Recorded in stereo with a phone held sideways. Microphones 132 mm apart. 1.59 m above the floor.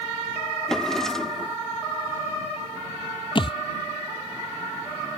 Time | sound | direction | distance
0.7 | a drawer | 5° left (ahead or behind) | ?
3.4 | a thud | 40° left (ahead or behind) | ?